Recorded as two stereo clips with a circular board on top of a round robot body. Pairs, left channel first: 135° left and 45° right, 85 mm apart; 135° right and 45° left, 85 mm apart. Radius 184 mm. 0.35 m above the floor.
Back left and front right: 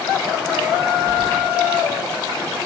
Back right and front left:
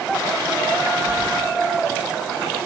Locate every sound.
1.1 s keys jangling: 30° left, 6.5 m